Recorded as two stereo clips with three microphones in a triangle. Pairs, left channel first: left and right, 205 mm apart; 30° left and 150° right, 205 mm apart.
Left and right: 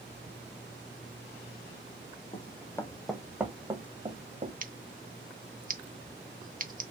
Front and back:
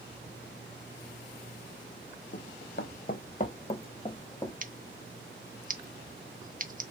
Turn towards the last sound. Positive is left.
turn(degrees=-120)